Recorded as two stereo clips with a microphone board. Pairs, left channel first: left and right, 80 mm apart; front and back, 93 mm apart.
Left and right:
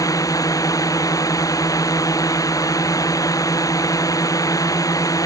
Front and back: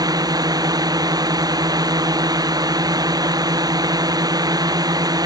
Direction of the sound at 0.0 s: 135° left.